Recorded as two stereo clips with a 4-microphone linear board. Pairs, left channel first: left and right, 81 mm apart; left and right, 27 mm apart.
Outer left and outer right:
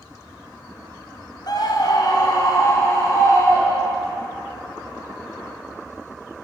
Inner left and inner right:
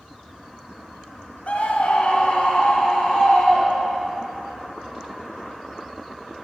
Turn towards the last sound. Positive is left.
turn(degrees=30)  # may be behind; listen again after turning